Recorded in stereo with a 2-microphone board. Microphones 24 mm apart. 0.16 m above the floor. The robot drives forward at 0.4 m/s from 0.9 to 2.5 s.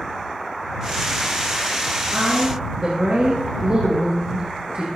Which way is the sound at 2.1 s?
55° right (ahead or behind).